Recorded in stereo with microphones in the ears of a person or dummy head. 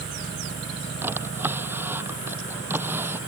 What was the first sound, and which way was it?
A drawer, 15° right (ahead or behind).